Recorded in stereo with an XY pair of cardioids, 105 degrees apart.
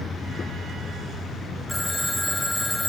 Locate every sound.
1.7 s a phone ringing: 10° left, 1.3 m